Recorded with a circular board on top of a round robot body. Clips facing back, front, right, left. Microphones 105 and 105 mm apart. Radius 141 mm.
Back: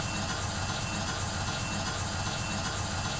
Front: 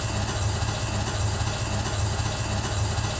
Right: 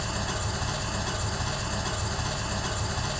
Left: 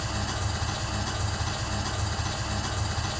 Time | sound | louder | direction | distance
0.0 | an engine running | front 4 dB, right 1 dB | 5° right | 0.8 m